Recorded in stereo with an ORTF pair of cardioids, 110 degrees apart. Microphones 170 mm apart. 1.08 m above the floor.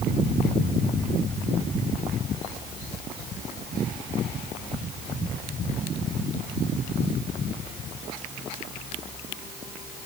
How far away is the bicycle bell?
No bicycle bell in this recording.